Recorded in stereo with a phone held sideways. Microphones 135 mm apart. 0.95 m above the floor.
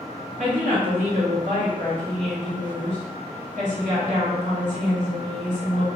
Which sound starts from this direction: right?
A woman speaking, at 0.4 s.